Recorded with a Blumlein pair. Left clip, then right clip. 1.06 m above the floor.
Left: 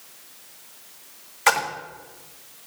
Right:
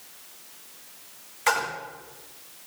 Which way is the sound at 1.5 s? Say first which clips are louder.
Left 4 dB; 20° left.